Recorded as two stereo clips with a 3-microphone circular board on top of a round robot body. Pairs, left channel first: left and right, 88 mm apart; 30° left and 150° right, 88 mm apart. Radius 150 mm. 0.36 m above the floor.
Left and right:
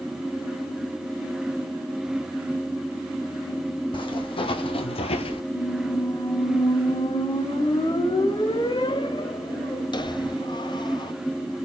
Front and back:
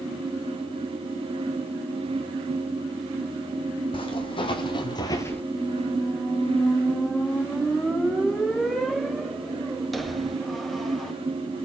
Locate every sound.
3.9 s footsteps: 60° left, 1.6 m; by 5.4 s 110° left, 0.5 m
5.5 s a squeak: 120° left, 1.3 m